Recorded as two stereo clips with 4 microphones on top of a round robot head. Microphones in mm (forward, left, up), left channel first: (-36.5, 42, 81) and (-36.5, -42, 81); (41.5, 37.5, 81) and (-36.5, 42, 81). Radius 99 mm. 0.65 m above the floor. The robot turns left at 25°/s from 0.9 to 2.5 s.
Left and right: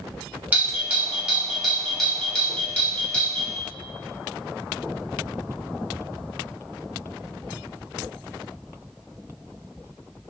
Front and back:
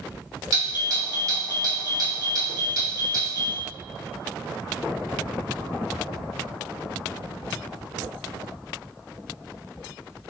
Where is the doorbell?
155° right, 1.4 m; by 3.5 s 165° left, 1.4 m.